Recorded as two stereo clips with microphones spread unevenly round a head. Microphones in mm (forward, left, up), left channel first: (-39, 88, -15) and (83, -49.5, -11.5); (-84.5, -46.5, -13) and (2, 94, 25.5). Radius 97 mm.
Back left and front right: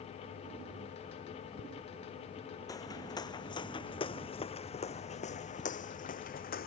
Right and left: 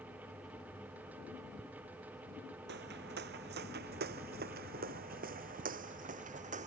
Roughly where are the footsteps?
Ahead left.